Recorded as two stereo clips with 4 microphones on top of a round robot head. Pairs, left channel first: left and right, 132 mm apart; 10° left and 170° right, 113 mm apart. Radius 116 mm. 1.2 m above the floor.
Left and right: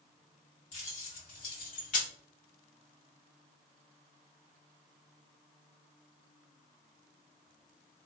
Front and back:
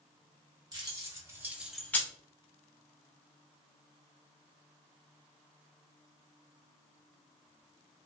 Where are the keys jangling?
135° left, 1.0 m; by 2.1 s 70° left, 0.5 m.